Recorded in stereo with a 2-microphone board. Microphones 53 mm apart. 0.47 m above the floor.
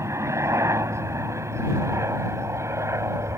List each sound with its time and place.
0.0 s a helicopter: 65° right (ahead or behind)